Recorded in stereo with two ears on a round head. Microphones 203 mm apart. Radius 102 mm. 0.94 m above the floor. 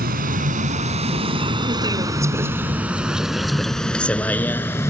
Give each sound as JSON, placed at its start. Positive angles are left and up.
{"t": 0.0, "sound": "a vehicle", "side_deg": -45}